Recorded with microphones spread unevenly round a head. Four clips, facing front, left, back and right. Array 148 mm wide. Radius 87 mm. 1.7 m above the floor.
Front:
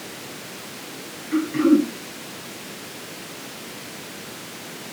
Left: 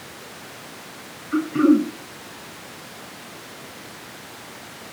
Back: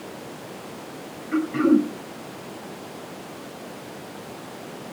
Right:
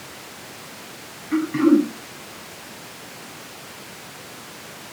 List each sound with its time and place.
1.3 s throat clearing: 80° right, 8 m